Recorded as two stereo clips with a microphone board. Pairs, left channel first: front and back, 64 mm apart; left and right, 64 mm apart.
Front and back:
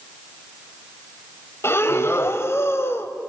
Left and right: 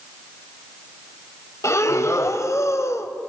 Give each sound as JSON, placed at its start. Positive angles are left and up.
{"t": 1.6, "sound": "breathing", "azimuth_deg": 50, "distance_m": 1.3}